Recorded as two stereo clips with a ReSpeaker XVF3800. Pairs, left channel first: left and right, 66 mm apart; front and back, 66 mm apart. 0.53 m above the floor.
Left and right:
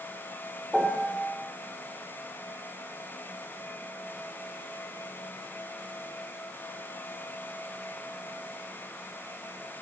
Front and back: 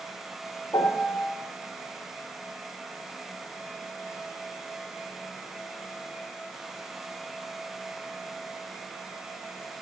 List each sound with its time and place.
0.7 s a piano: 5° left, 1.5 m